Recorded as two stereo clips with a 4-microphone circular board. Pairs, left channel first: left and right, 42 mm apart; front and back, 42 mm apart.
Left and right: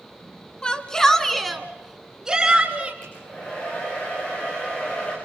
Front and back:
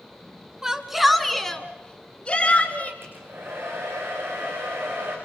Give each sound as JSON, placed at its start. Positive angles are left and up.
{"t": 0.6, "sound": "a shout", "azimuth_deg": 120, "distance_m": 1.4}
{"t": 3.0, "sound": "a hair dryer", "azimuth_deg": 150, "distance_m": 7.0}